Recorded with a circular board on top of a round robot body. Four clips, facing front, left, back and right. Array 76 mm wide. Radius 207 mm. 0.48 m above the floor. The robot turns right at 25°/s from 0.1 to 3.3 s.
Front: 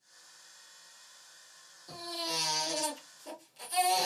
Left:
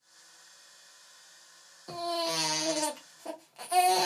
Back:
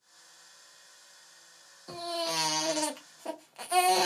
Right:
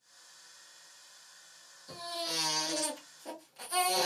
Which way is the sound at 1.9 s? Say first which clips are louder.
Left 8 dB, back 5 dB; 125° left.